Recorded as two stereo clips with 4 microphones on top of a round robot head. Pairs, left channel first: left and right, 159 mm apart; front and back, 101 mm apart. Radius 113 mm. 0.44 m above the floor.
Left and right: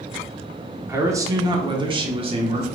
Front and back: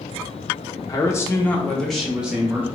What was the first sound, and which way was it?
A man speaking, 25° right.